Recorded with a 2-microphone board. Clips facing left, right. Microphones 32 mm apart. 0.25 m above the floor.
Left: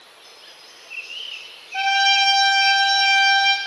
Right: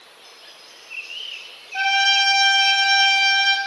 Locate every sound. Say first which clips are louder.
1.7 s a trumpet: even; 20° left (ahead or behind), 1.0 m